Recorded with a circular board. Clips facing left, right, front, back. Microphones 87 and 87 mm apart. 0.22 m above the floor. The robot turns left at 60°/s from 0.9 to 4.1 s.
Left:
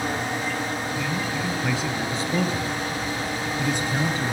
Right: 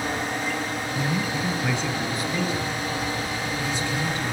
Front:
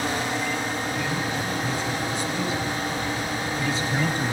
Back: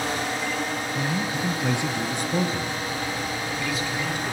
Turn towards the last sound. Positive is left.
turn(degrees=35)